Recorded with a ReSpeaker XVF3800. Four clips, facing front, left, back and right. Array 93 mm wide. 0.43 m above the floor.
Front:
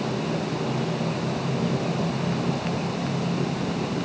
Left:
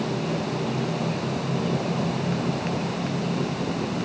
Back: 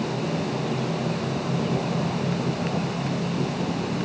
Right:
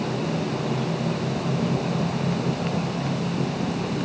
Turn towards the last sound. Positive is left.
No sound to turn to.